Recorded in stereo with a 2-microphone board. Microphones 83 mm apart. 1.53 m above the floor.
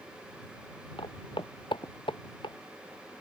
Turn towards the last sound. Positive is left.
turn(degrees=80)